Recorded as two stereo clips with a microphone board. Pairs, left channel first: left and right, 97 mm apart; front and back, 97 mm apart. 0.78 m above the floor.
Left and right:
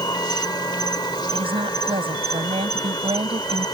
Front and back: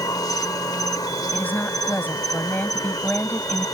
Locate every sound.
0.0 s an insect: 50° left
1.3 s a woman speaking: 75° right